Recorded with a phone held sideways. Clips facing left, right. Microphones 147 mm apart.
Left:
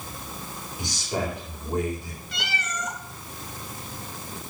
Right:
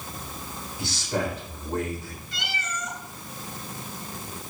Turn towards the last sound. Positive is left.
turn(degrees=70)  # may be behind; listen again after turning